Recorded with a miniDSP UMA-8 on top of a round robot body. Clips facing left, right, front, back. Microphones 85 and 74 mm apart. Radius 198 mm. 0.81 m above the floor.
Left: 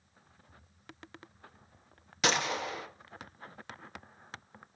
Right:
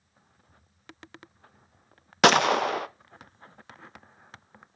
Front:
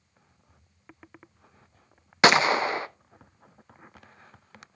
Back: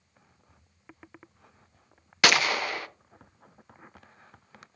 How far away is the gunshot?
About 0.6 m.